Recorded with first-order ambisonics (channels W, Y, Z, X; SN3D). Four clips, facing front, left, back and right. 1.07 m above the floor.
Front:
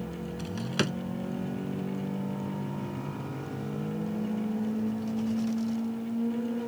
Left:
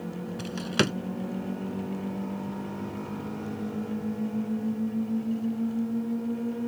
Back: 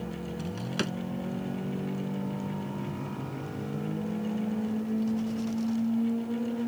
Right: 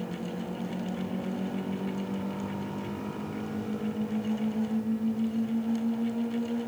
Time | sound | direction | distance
0.4 | a drawer | 80° left | ?